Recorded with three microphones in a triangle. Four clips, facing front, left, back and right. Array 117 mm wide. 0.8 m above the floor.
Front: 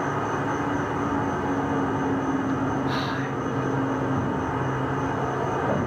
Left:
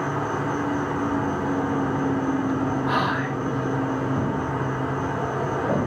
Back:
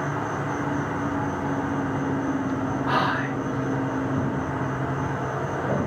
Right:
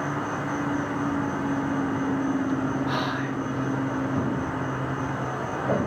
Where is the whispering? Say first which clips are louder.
Left 4 dB, back 3 dB; 145° left, 0.8 m.